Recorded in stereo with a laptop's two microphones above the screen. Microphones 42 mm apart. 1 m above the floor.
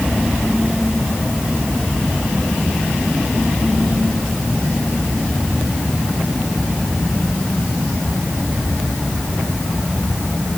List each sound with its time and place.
Only background noise.